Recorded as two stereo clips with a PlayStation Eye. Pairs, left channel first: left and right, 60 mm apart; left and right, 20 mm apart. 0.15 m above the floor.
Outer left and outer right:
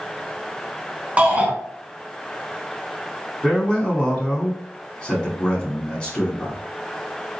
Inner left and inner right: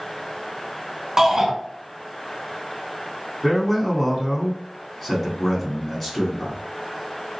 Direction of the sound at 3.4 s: 15° left (ahead or behind).